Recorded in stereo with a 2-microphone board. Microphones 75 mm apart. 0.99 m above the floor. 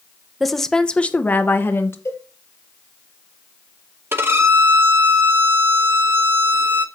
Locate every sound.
0.4 s a woman speaking: centre (ahead or behind), 0.8 m; by 1.9 s 40° left (ahead or behind), 1.0 m
2.0 s a cowbell: 40° left (ahead or behind), 6 m
4.1 s a violin: 35° right (ahead or behind), 0.9 m